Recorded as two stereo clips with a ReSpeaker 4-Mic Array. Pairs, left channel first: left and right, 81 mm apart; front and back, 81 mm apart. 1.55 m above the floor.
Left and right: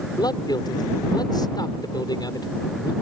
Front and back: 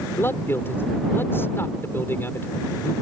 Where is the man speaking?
60° left.